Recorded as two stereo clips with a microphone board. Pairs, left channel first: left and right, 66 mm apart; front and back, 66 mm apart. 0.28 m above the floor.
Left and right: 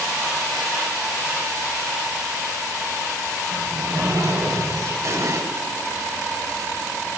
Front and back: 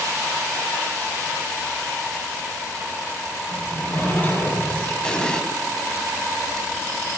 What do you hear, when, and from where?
3.5 s a sliding door: 65° right, 6 m
5.0 s an explosion: 75° right, 1.6 m